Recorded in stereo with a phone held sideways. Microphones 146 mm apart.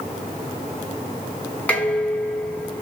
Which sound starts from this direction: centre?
Dishes clattering, at 1.7 s.